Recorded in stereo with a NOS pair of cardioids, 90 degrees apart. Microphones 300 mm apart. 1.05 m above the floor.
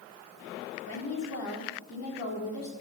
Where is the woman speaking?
60° left, 3 m.